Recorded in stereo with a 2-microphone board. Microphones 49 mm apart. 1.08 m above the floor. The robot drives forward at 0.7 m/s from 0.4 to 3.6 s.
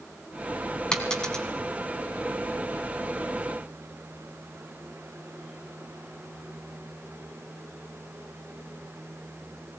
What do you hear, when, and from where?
0.9 s a dropped coin: 15° left (ahead or behind), 2.5 m